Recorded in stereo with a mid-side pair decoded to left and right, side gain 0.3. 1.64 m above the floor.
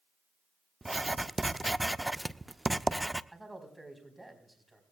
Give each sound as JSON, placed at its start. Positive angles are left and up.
{"t": 0.8, "sound": "writing", "azimuth_deg": -10, "distance_m": 0.5}
{"t": 3.3, "sound": "a man speaking", "azimuth_deg": -10, "distance_m": 4.5}